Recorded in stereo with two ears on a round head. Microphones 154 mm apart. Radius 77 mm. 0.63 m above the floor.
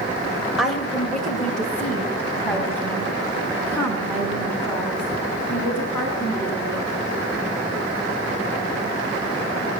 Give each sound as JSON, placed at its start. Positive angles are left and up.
{"t": 0.6, "sound": "a woman speaking", "side_deg": 0, "distance_m": 2.0}